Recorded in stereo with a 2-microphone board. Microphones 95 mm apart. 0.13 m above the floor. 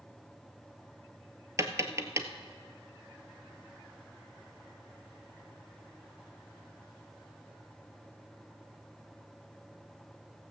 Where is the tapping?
30° right (ahead or behind), 0.9 m.